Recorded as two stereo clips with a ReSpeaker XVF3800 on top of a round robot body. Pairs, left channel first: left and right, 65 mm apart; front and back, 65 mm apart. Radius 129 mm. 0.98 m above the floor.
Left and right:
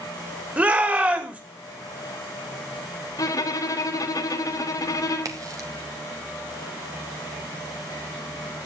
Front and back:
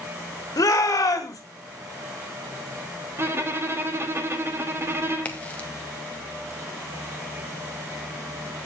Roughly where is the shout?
Ahead right.